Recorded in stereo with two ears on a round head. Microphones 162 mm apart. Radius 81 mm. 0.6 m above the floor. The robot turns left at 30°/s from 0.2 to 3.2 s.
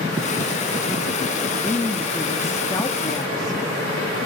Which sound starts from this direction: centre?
A woman speaking, at 1.6 s.